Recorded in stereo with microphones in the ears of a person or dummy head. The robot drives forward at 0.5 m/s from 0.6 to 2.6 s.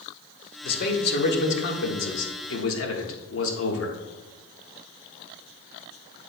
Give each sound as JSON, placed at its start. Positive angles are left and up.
{"t": 0.6, "sound": "a man speaking", "side_deg": 55, "distance_m": 2.0}